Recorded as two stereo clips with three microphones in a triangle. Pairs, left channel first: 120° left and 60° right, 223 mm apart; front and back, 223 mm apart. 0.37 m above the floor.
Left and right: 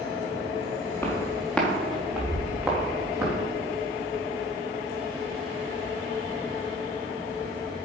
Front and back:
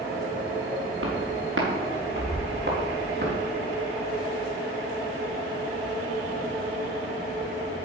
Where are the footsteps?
160° right, 3.5 m; by 3.3 s 135° right, 4 m.